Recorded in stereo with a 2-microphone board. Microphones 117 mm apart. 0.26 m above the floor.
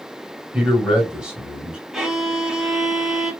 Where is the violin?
5° right (ahead or behind), 1.0 m.